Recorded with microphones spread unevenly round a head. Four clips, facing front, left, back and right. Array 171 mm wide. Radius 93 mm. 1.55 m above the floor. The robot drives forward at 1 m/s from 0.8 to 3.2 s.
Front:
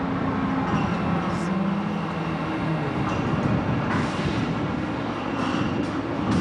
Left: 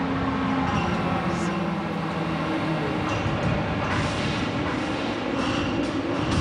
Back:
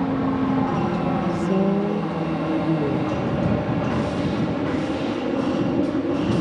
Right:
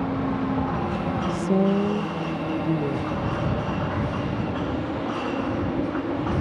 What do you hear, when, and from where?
0.0 s a helicopter: 175° right
1.3 s a woman speaking: 120° right; by 3.2 s 160° right